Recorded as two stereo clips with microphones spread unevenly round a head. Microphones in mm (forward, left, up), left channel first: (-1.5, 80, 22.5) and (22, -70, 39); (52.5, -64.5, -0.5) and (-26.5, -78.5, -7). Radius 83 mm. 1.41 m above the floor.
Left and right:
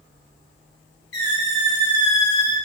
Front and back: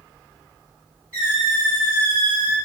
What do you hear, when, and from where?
1.1 s a squeak: 85° left, 1.5 m